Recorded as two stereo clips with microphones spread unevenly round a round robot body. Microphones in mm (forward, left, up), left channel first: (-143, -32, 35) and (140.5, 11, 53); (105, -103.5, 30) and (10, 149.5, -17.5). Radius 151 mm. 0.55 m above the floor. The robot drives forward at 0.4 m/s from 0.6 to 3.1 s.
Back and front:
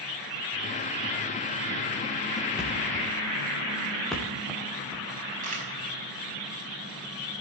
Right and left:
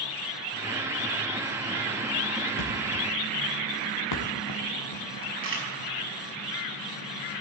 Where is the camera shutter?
70° left, 5 m.